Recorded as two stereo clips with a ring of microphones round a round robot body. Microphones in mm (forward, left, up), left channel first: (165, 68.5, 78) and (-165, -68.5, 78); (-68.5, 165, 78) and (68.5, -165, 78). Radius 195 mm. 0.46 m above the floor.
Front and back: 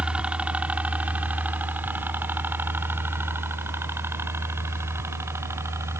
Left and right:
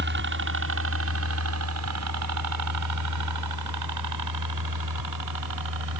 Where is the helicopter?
75° right.